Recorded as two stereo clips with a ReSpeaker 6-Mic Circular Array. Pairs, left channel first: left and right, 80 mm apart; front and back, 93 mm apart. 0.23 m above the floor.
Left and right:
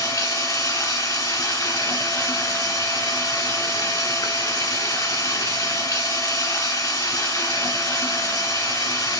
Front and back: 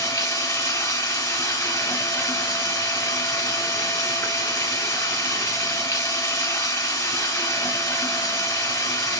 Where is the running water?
55° left, 1.3 m.